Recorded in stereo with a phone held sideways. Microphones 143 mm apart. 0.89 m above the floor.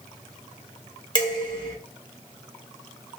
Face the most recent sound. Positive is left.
turn(degrees=30)  # may be behind; listen again after turning